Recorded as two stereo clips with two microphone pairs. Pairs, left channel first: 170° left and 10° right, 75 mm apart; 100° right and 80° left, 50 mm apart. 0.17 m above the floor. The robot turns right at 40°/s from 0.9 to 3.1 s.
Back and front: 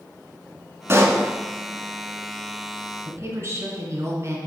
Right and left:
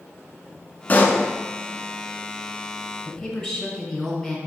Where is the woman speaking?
15° right, 1.7 m.